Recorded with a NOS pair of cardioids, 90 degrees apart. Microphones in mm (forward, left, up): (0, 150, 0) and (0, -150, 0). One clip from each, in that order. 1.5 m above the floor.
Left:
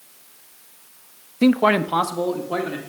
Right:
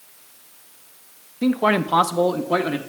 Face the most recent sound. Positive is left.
turn(degrees=-40)